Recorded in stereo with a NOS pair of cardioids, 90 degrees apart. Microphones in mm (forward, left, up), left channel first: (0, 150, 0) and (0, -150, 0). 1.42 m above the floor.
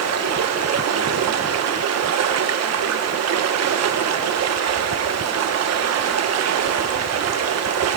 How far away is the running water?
About 1.0 m.